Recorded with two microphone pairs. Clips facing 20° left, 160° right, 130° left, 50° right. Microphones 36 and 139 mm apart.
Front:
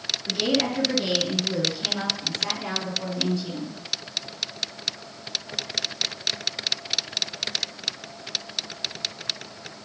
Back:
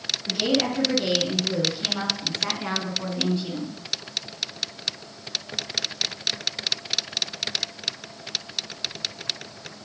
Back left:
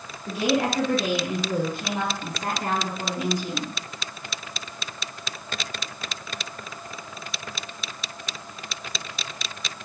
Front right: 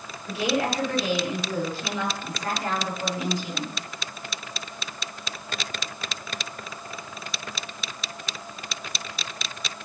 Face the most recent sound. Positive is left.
turn(degrees=155)